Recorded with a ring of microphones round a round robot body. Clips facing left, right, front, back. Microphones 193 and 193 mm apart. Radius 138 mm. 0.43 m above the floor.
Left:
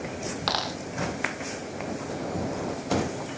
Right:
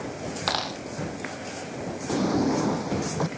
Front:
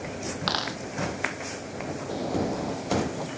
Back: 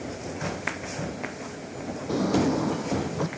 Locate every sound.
0.5 s a dropped coin: straight ahead
2.1 s a drawer: 130° right